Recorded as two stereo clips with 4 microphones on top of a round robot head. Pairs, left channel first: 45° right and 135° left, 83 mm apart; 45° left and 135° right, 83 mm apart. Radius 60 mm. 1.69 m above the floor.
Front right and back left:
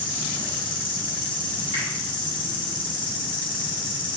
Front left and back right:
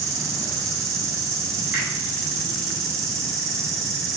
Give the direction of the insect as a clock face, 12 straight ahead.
3 o'clock.